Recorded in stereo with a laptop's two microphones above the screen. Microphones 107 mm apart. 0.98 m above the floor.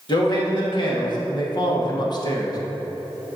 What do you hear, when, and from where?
0.1 s a man speaking: 45° left (ahead or behind), 1.9 m; by 2.6 s 40° left (ahead or behind), 1.0 m